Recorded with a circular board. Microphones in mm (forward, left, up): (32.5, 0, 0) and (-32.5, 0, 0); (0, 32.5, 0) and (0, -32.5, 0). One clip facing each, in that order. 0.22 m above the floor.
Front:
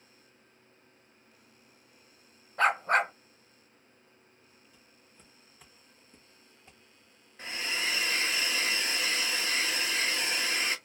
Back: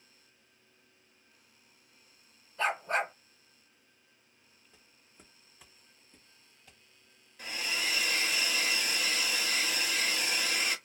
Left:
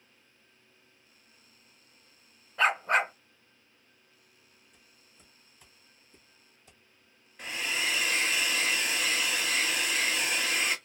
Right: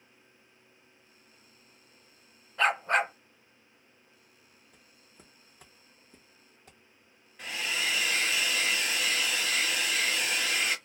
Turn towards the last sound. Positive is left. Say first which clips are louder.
# front 1 dB, even
turn(degrees=5)